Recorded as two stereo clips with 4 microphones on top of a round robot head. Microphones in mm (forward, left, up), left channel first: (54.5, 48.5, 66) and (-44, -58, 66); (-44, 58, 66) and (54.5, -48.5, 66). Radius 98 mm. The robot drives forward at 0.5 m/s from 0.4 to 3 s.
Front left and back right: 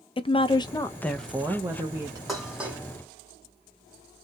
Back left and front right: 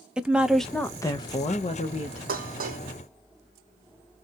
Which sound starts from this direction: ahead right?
Dishes clattering, at 2.3 s.